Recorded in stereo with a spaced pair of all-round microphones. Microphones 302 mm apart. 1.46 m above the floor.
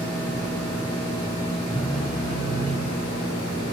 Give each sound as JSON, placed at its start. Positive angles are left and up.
{"t": 1.7, "sound": "a phone buzzing", "side_deg": 0, "distance_m": 3.0}